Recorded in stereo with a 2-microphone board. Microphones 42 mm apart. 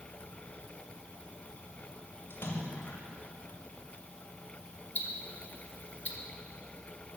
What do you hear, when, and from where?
2.3 s a splash: 65° left (ahead or behind), 2.5 m
5.0 s ticking: 45° left (ahead or behind), 1.3 m